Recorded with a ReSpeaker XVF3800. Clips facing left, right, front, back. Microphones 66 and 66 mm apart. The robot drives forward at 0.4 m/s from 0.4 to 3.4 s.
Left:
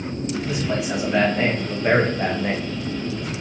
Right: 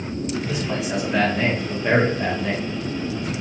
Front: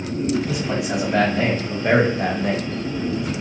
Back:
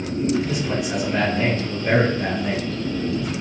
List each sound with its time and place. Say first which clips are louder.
0.5 s a man speaking: left 1 dB, front 1 dB; 10° left, 1.4 m; by 2.7 s 30° left, 0.5 m